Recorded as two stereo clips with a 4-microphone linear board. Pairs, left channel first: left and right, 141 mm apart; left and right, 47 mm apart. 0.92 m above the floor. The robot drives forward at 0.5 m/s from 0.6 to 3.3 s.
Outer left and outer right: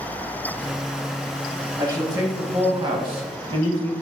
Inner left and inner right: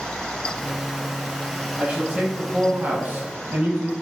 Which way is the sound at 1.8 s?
25° right (ahead or behind).